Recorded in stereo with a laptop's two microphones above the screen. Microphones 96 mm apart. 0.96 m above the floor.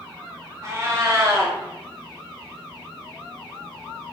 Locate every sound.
0.6 s a cat meowing: 35° right (ahead or behind), 0.9 m